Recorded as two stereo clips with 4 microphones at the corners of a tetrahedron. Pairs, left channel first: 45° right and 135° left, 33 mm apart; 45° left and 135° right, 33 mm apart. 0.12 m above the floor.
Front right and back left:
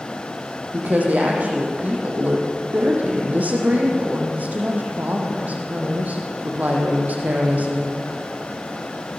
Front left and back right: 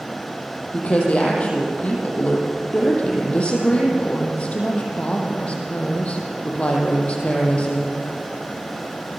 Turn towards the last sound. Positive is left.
turn(degrees=100)